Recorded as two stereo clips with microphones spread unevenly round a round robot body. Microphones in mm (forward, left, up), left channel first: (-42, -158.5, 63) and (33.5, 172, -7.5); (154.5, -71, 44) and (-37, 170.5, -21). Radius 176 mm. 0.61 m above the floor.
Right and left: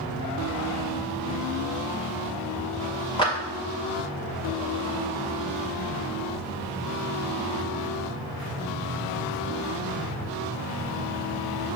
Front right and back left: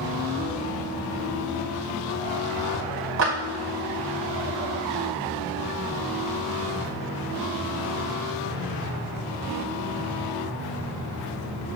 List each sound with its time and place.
3.2 s a clap: 175° left, 1.9 m